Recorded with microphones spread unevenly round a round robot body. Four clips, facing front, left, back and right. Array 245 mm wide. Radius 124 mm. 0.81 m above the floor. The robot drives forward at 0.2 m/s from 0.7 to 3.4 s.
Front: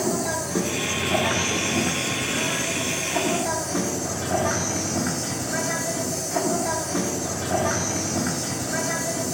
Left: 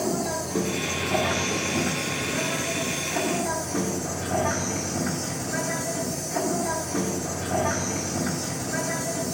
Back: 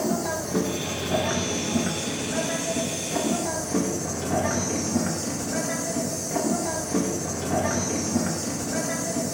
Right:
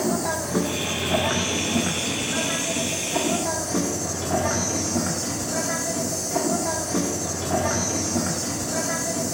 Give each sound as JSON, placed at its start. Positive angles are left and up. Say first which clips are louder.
{"t": 0.0, "sound": "an insect", "louder": "right 2 dB, front 1 dB", "azimuth_deg": -125, "distance_m": 1.2}